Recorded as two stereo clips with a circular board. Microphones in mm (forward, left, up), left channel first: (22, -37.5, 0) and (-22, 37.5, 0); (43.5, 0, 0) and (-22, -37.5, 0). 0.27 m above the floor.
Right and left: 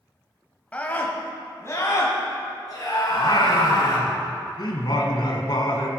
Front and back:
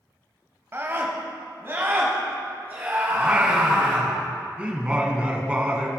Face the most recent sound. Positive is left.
turn(degrees=-80)